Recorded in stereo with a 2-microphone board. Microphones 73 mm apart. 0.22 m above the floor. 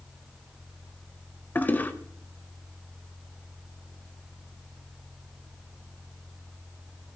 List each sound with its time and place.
1.6 s a toilet flushing: 25° left (ahead or behind), 0.9 m